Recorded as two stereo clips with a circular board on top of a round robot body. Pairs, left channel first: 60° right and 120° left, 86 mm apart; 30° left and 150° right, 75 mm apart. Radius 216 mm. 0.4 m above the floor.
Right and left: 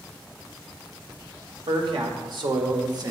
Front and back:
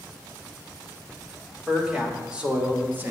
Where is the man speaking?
125° left, 2.5 m; by 3.1 s 155° left, 2.0 m.